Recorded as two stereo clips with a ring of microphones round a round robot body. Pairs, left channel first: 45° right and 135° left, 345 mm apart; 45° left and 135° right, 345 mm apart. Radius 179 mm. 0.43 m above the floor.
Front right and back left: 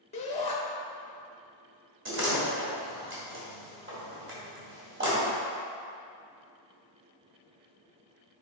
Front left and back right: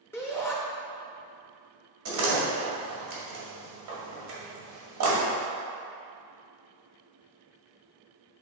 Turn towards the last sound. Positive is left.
turn(degrees=-170)